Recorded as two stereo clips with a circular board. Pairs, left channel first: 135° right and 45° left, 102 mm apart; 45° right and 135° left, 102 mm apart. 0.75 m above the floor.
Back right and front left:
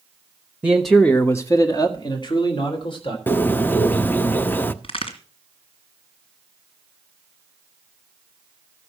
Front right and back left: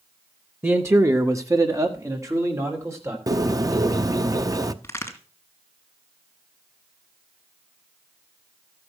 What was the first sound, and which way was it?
A man speaking, 100° left.